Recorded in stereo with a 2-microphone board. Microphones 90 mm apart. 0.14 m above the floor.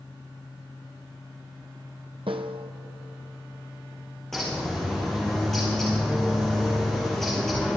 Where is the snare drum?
80° right, 1.1 m.